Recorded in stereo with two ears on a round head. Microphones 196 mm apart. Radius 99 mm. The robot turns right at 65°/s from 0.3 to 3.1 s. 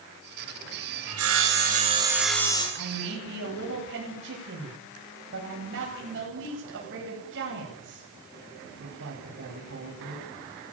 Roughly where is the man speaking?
Right.